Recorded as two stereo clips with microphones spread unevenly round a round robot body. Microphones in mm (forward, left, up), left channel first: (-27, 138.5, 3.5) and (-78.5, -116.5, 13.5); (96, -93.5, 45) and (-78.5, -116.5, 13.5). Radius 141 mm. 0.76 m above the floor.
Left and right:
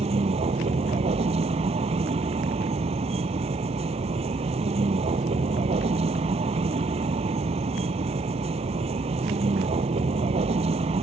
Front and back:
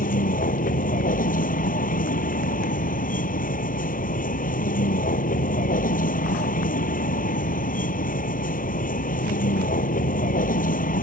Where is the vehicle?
30° right.